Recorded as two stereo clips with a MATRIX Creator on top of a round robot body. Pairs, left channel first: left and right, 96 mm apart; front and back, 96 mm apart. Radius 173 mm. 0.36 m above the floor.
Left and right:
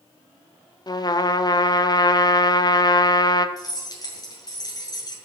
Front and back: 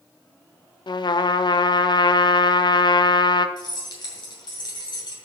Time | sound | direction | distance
0.9 | a trumpet | 45° left | 0.6 m
3.6 | keys jangling | 40° left | 2.5 m